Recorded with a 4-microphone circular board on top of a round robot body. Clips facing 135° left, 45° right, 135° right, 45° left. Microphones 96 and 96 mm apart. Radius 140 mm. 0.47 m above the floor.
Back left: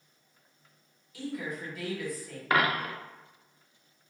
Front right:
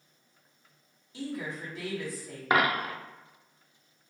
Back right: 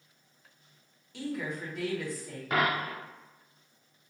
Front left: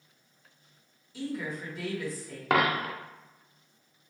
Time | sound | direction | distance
1.1 | a woman speaking | 105° right | 1.8 m
2.5 | a dropped coin | 25° left | 0.6 m